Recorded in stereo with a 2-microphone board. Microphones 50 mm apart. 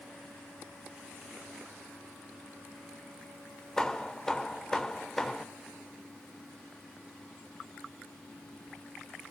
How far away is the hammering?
About 1.4 m.